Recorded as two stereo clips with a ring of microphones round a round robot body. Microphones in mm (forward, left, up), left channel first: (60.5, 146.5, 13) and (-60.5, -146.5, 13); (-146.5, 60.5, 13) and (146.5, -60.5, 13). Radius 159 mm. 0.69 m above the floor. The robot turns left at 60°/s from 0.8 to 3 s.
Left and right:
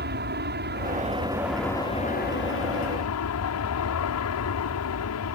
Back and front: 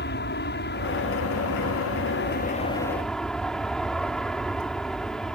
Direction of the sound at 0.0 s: 160° right.